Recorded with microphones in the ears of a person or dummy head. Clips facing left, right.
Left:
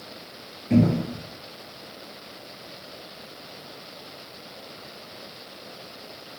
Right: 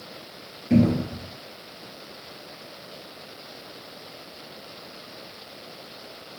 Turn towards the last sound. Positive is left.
turn(degrees=-5)  # may be behind; listen again after turning